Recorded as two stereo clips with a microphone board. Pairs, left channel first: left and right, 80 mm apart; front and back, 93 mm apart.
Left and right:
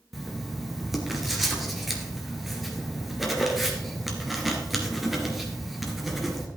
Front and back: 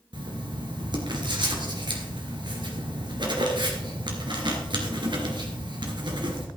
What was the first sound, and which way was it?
Writing, straight behind.